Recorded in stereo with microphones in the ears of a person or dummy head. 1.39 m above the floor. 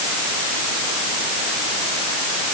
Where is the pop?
I don't hear a pop.